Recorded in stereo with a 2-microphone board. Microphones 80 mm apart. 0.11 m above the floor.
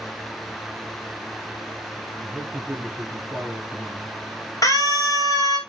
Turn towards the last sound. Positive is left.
turn(degrees=45)  # may be behind; listen again after turning